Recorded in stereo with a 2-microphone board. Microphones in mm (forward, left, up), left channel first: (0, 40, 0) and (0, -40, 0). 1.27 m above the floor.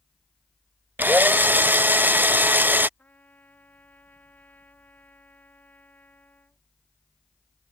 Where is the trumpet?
25° left (ahead or behind).